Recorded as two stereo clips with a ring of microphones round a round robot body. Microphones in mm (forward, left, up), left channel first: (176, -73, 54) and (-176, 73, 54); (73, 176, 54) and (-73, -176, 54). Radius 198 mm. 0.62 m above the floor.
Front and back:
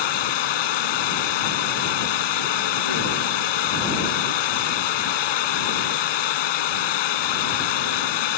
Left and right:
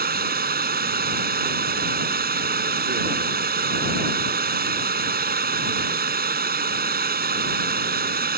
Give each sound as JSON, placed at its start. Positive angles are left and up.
{"t": 0.0, "sound": "running water", "azimuth_deg": -45}